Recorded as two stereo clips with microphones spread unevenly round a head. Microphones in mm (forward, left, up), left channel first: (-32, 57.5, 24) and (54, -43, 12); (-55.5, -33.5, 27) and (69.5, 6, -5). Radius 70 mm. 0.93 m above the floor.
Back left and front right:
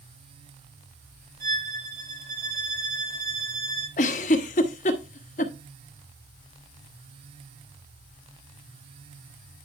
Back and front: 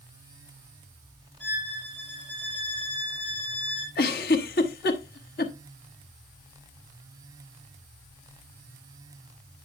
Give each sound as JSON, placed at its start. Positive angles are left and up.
{"t": 1.4, "sound": "a violin", "azimuth_deg": -80, "distance_m": 4.0}
{"t": 4.0, "sound": "a giggle", "azimuth_deg": 170, "distance_m": 1.2}